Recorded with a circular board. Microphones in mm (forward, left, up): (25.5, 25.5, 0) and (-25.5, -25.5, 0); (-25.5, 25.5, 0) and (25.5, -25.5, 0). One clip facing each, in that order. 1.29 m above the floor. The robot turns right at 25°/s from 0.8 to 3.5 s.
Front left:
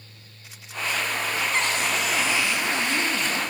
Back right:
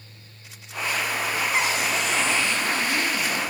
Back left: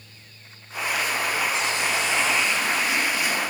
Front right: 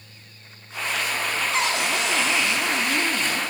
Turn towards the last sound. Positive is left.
turn(degrees=-10)